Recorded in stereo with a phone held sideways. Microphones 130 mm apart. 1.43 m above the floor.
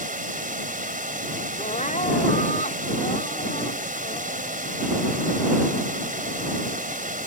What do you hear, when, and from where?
0.0 s running water: 80° right
1.6 s crying: 65° left (ahead or behind)